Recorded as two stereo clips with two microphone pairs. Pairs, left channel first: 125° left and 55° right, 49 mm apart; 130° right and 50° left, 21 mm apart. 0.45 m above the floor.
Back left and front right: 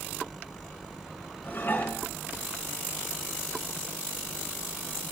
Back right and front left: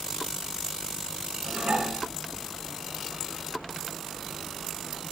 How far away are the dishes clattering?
About 4 m.